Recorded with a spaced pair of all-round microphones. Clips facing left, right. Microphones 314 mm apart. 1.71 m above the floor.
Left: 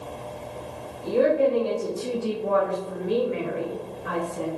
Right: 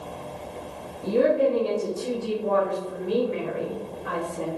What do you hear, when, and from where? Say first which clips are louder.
1.0 s a woman speaking: even; 30° right (ahead or behind), 0.9 m; by 4.5 s 35° left (ahead or behind), 3 m